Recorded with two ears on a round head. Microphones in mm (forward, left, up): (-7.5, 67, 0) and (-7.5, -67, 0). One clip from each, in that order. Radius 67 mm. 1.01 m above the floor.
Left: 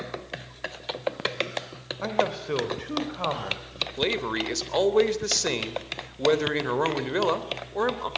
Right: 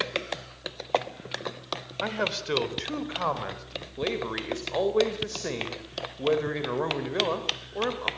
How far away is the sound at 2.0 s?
About 3.5 m.